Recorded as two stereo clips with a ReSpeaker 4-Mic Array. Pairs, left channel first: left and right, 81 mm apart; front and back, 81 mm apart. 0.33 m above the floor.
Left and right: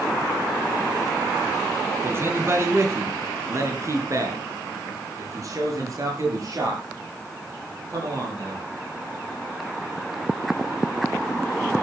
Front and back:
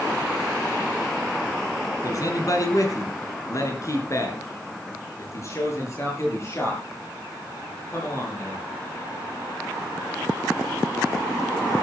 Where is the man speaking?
35° right, 3.5 m; by 8.7 s 55° right, 10 m.